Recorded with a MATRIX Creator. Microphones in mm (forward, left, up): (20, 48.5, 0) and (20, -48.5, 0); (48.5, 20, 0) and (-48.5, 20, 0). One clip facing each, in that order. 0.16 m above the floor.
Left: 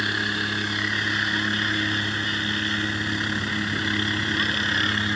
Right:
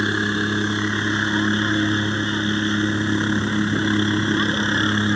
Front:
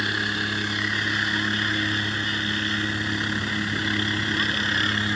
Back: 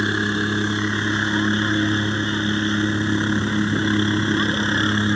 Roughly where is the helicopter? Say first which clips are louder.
Right 6 dB, back 6 dB; behind right.